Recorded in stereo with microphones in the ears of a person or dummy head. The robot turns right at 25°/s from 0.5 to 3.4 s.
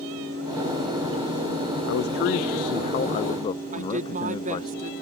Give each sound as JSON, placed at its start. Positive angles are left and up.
{"t": 1.9, "sound": "a man speaking", "azimuth_deg": 115}
{"t": 3.7, "sound": "a woman speaking", "side_deg": -40}